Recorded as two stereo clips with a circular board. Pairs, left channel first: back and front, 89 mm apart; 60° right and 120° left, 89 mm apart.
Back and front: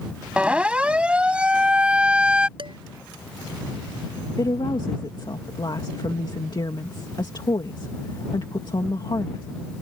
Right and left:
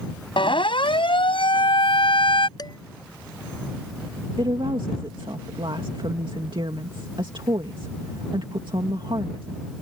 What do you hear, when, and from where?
0.4 s a siren: 75° right
2.6 s dishes clattering: 20° right
4.4 s a woman speaking: 145° left